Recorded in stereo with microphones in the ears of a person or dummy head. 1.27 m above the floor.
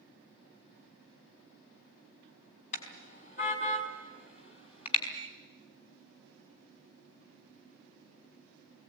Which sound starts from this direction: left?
A car horn, at 2.7 s.